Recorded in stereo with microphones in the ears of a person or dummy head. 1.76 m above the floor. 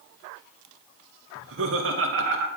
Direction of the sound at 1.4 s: 70° right (ahead or behind).